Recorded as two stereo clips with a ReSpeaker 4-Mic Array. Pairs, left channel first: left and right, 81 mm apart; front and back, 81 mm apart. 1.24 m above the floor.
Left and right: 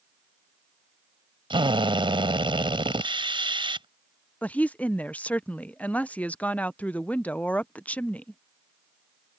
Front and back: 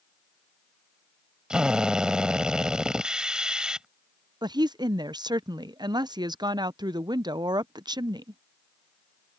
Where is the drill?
100° right.